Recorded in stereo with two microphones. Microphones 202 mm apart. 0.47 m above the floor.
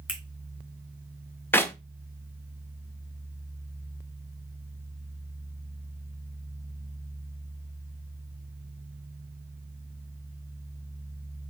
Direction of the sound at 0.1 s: 5° right (ahead or behind).